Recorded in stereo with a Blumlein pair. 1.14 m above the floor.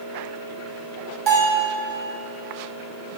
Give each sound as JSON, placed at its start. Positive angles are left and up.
{"t": 1.3, "sound": "a bell", "azimuth_deg": -35, "distance_m": 1.4}